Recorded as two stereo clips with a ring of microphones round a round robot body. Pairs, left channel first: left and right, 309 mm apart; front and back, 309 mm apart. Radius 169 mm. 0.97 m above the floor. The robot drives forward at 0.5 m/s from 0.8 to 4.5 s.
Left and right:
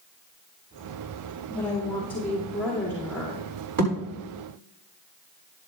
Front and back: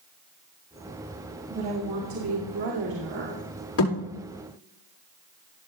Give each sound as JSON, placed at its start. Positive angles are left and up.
{"t": 1.5, "sound": "a woman speaking", "azimuth_deg": 175, "distance_m": 1.9}
{"t": 3.8, "sound": "a thud", "azimuth_deg": -45, "distance_m": 6.0}